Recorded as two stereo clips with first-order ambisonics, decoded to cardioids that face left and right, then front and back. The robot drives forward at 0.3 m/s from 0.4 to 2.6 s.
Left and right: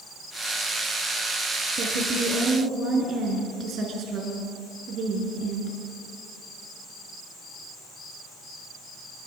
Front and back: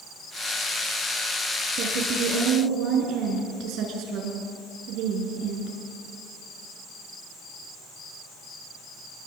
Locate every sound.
1.8 s a woman speaking: 140° right, 5.5 m; by 5.8 s 145° right, 6 m